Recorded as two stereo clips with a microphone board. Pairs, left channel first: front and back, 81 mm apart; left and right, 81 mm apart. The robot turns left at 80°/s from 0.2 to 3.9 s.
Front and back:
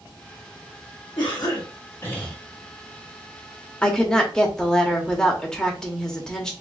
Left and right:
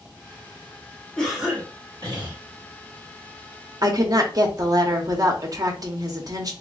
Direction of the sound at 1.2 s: 10° left.